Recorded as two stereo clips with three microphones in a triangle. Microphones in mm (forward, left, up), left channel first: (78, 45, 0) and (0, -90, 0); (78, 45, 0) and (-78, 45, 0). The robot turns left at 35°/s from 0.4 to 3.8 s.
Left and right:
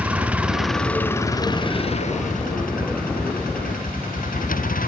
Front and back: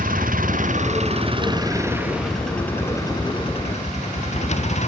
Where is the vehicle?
160° left; by 4.9 s 40° left.